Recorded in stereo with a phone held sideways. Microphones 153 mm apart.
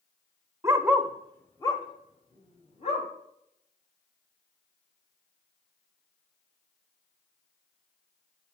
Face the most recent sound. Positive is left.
turn(degrees=45)  # may be behind; listen again after turning